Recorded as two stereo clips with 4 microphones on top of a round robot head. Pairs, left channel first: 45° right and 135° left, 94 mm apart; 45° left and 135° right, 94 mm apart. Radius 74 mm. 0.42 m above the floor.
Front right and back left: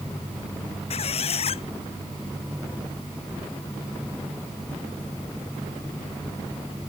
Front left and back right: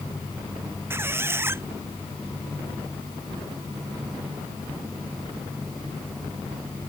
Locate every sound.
0.9 s a squeak: 65° right